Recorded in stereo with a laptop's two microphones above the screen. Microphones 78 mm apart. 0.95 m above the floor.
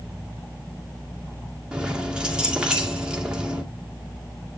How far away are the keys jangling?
About 1.8 m.